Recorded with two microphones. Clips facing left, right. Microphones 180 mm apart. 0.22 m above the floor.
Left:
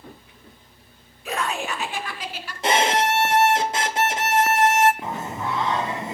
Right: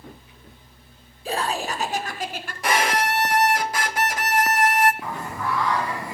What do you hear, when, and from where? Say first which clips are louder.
1.2 s laughter: right 1 dB; 30° right (ahead or behind), 2 m; by 2.5 s 50° right (ahead or behind), 2.5 m
2.6 s a violin: left 2 dB; 25° left (ahead or behind), 1.2 m
5.0 s singing: left 1 dB; 25° left (ahead or behind), 1.4 m